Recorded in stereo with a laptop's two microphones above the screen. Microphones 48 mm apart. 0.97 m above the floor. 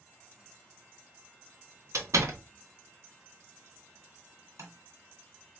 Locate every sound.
1.9 s a door slam: 75° right (ahead or behind), 0.9 m
4.6 s tapping: 75° right (ahead or behind), 1.8 m